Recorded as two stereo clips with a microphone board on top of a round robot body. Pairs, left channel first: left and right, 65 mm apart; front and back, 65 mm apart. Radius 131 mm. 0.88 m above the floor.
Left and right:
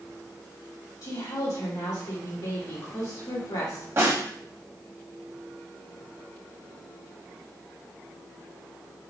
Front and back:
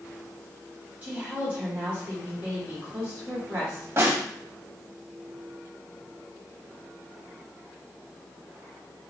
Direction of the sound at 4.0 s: 135° right.